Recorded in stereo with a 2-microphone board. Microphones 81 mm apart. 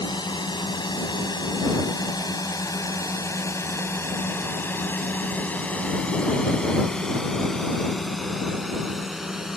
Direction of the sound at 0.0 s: 70° left (ahead or behind).